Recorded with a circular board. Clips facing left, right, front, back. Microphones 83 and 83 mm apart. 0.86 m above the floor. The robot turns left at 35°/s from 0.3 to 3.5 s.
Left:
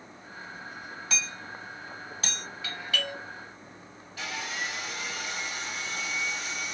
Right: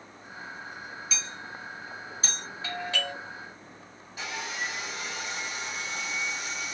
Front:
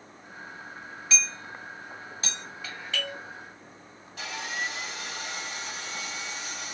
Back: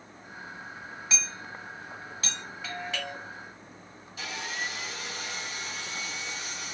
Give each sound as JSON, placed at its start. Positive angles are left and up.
{"t": 1.1, "sound": "hammering", "azimuth_deg": 105, "distance_m": 1.8}
{"t": 2.6, "sound": "a doorbell", "azimuth_deg": -85, "distance_m": 1.6}
{"t": 4.2, "sound": "sawing", "azimuth_deg": -15, "distance_m": 1.8}